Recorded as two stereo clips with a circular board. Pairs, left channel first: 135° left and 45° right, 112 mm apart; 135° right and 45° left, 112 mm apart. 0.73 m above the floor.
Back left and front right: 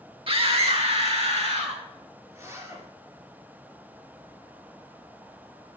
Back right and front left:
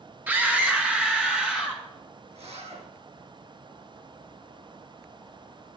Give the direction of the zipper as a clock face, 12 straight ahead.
11 o'clock.